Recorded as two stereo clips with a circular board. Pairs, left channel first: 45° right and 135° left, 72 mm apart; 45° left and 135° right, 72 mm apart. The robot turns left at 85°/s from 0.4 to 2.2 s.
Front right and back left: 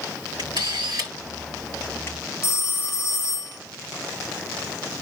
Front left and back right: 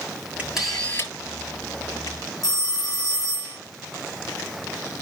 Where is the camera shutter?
155° left, 9 m; by 2.2 s 5° left, 9 m.